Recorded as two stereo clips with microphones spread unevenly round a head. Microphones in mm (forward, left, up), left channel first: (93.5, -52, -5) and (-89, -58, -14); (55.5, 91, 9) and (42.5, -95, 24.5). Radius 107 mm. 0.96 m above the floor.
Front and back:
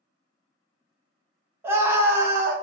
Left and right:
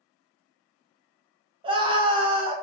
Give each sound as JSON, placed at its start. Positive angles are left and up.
{"t": 1.6, "sound": "a scream", "azimuth_deg": -125, "distance_m": 0.6}